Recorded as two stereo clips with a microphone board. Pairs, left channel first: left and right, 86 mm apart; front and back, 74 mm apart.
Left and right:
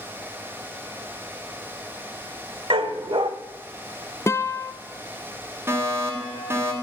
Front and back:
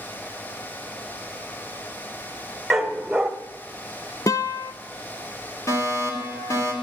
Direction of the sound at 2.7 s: 90° right.